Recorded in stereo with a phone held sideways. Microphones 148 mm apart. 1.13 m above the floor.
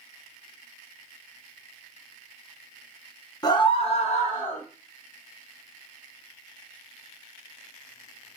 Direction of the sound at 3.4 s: 25° left (ahead or behind).